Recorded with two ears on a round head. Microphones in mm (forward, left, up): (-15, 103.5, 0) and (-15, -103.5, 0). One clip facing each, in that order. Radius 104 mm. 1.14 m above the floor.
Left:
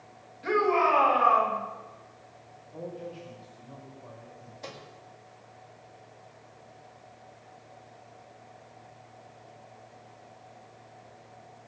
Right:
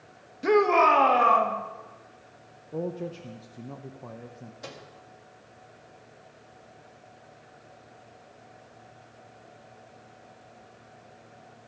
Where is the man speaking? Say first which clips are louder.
Right 7 dB; 60° right (ahead or behind), 0.9 m.